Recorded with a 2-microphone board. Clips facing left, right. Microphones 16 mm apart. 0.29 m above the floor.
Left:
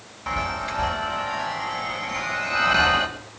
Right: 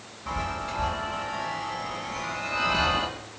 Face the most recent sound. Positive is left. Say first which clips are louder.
# left 4 dB
turn(degrees=45)  # may be behind; listen again after turning